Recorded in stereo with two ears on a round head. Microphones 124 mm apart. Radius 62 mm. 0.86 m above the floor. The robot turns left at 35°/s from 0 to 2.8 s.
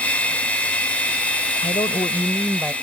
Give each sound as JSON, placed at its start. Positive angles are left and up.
{"t": 1.6, "sound": "a woman speaking", "azimuth_deg": 35}